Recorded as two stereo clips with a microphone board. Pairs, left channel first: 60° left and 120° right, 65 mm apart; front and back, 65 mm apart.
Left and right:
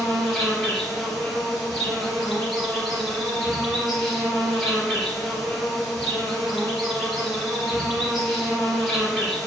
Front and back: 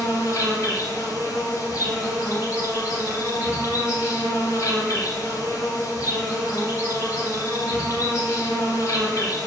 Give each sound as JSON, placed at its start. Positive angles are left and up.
{"t": 0.0, "sound": "an insect", "azimuth_deg": -30, "distance_m": 1.5}